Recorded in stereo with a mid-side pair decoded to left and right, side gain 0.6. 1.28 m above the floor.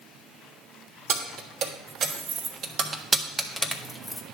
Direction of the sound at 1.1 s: 65° right.